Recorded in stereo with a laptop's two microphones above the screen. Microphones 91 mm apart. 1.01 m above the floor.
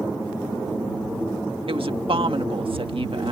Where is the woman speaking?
75° right (ahead or behind).